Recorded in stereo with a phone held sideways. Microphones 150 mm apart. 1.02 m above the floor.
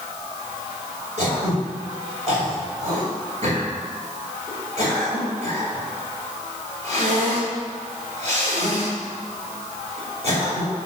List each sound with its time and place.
1.2 s throat clearing: 50° right (ahead or behind), 5 m